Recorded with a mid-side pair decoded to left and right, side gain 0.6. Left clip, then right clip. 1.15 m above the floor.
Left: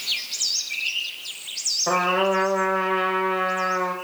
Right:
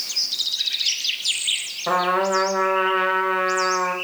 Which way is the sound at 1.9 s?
15° right.